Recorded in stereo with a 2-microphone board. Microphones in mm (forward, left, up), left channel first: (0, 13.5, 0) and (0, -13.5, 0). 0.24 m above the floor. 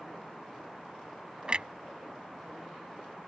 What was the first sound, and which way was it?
A clunk, 40° right (ahead or behind).